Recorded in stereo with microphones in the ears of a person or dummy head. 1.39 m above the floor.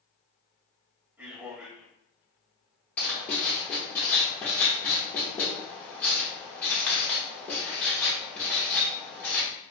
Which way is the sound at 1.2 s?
15° right (ahead or behind).